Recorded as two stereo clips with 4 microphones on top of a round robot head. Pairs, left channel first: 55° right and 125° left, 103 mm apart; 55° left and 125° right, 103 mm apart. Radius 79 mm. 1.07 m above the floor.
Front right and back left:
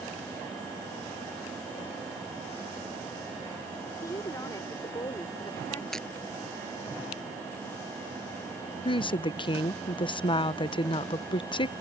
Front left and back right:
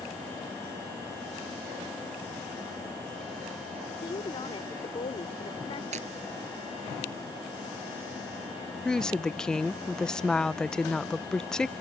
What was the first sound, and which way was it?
A woman speaking, 10° left.